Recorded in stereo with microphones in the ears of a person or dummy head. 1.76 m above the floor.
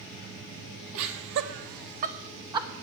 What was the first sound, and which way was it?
Laughter, 75° right (ahead or behind).